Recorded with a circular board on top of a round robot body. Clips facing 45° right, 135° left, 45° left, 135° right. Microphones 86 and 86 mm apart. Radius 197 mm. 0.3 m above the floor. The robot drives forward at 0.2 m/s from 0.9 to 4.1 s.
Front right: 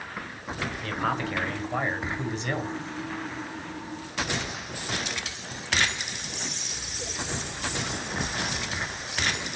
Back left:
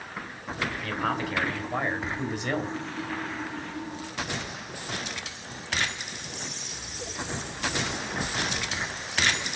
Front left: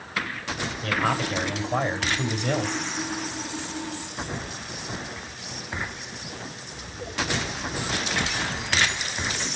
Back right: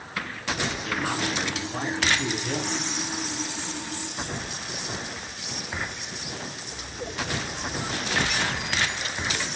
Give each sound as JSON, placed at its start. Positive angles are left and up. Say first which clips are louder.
{"t": 0.8, "sound": "a man speaking", "louder": "front right 2 dB, front left 6 dB", "azimuth_deg": 50, "distance_m": 3.0}